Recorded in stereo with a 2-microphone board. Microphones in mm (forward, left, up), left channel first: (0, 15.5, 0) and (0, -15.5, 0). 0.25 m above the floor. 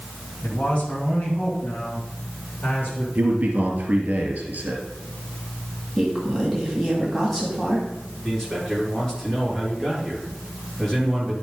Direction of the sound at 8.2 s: 20° left (ahead or behind).